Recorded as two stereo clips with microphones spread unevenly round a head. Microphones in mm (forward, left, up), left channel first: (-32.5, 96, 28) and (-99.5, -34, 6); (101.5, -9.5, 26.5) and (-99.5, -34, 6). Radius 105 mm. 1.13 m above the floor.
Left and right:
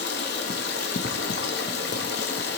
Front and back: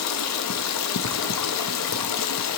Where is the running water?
20° left, 1.0 m.